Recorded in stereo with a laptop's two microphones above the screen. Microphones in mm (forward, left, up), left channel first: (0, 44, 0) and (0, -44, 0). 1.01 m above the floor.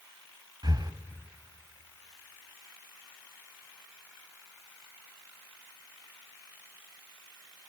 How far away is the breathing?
About 1.4 m.